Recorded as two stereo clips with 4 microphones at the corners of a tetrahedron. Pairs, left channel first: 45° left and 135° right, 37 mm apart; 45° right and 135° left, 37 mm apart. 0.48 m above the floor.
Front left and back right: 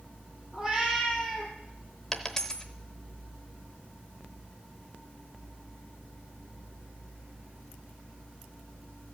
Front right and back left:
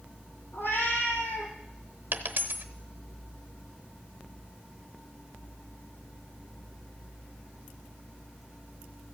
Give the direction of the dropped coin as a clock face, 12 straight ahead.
8 o'clock.